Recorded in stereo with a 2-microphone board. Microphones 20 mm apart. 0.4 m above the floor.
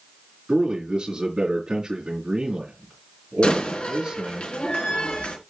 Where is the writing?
No writing in this recording.